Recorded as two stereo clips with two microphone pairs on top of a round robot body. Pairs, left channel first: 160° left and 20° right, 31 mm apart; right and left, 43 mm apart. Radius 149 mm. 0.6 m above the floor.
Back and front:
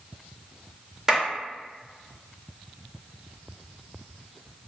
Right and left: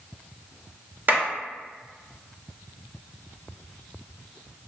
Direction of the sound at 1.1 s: 55° left.